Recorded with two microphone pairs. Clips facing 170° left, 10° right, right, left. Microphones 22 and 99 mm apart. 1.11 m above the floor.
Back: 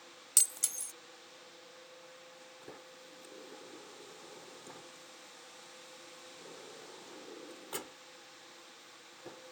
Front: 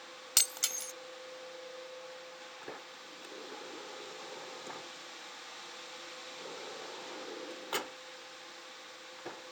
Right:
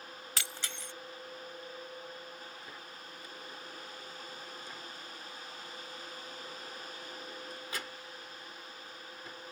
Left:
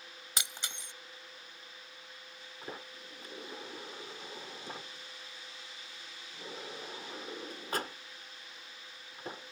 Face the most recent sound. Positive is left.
turn(degrees=45)